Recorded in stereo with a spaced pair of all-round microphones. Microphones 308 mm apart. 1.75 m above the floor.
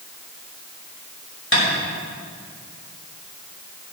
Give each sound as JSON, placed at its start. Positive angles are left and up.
{"t": 1.5, "sound": "tapping", "side_deg": 40, "distance_m": 6.5}